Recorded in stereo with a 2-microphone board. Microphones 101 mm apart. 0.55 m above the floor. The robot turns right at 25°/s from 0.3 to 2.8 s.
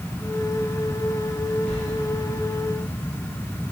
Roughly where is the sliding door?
Centre.